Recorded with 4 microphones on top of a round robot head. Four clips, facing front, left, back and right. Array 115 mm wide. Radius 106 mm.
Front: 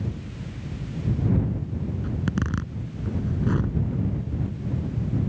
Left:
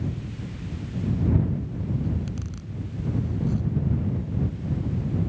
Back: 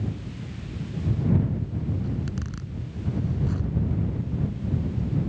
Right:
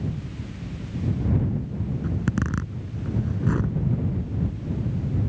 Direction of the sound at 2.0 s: 55° right.